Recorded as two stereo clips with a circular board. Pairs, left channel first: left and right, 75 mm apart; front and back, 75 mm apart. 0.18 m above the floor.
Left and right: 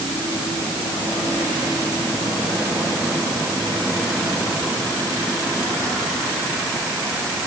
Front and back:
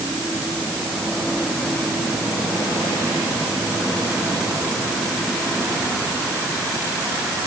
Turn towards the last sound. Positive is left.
No sound to turn to.